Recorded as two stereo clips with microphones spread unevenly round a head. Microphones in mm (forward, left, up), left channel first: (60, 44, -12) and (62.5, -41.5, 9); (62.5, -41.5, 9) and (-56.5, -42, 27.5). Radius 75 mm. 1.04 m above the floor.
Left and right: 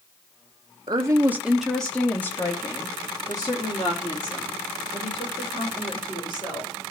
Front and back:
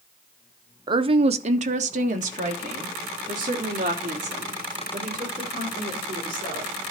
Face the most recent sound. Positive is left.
turn(degrees=140)